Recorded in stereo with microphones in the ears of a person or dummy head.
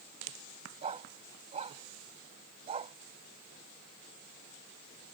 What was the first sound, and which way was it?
A dog barking, 30° right (ahead or behind).